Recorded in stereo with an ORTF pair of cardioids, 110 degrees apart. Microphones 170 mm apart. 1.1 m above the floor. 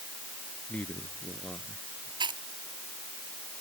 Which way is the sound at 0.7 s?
10° left.